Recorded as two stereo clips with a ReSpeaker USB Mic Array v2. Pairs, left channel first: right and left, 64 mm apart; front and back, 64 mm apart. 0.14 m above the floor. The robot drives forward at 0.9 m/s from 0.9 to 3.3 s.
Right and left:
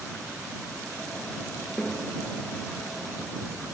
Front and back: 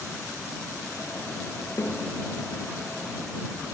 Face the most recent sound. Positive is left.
turn(degrees=-115)